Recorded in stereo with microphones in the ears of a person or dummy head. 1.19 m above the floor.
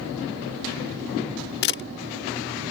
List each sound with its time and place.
1.6 s a camera shutter: 60° left (ahead or behind)